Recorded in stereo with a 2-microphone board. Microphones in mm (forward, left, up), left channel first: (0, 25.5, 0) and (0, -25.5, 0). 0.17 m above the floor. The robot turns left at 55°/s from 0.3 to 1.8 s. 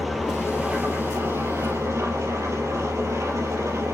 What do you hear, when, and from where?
0.0 s an engine running: 5° right, 4.5 m; by 4.0 s 85° right, 4.5 m